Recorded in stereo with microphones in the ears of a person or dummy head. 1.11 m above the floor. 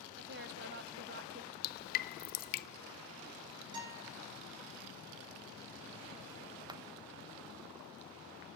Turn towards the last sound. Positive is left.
turn(degrees=-25)  # may be behind; listen again after turning